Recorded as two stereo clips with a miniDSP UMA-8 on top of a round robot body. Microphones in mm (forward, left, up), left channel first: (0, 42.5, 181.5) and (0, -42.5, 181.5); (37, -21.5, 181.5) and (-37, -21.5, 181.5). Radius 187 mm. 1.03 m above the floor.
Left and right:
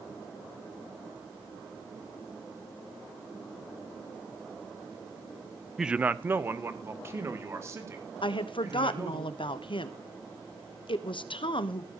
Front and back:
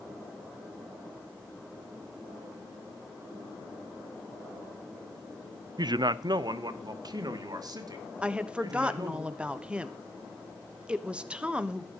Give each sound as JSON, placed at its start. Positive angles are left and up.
{"t": 5.8, "sound": "a man speaking", "azimuth_deg": -175, "distance_m": 0.5}
{"t": 8.2, "sound": "a woman speaking", "azimuth_deg": 105, "distance_m": 1.2}